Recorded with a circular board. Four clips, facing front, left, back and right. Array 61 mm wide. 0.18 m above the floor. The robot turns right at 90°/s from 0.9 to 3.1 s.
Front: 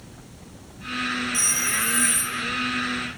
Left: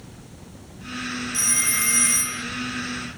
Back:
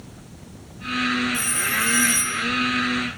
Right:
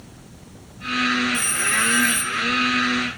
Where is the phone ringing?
50° left, 2 m; by 2.4 s 150° left, 2 m.